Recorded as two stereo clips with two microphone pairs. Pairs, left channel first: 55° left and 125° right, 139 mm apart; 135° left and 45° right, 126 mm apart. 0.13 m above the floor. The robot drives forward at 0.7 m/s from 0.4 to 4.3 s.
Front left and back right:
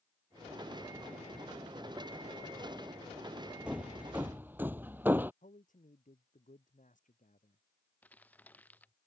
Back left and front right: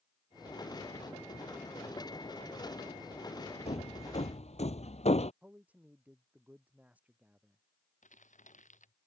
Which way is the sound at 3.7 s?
155° left.